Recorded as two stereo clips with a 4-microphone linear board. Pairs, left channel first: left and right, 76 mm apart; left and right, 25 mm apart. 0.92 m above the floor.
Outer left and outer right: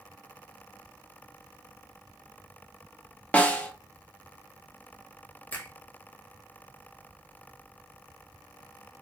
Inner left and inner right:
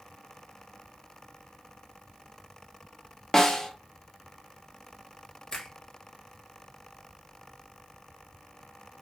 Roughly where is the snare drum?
Centre.